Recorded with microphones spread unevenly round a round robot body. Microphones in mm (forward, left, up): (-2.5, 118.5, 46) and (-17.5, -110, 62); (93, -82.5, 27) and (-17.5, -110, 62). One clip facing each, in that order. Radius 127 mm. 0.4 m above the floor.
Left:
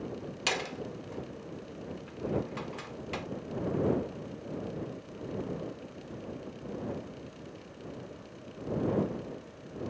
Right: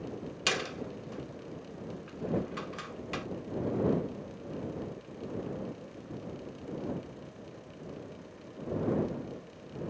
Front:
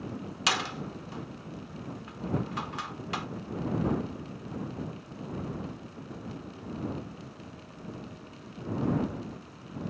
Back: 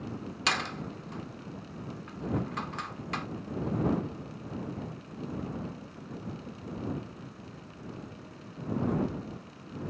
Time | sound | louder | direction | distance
0.5 | a door slam | right 1 dB, front 1 dB | 25° right | ?